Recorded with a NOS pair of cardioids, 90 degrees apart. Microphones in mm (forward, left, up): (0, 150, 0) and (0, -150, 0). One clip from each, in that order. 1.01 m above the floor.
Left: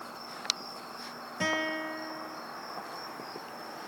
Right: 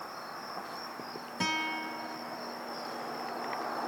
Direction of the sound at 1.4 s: 20° right.